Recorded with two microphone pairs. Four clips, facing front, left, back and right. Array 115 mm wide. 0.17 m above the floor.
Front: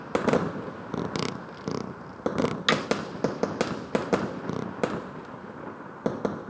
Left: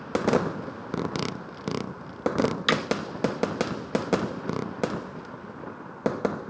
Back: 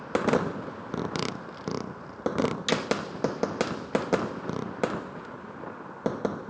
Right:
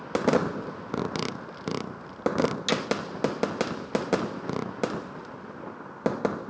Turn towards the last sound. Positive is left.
turn(degrees=45)